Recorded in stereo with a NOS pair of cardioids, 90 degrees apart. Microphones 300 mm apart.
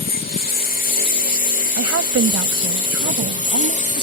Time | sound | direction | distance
0.0 | a lawn mower | 30° left | ?
1.8 | a woman speaking | 55° right | ?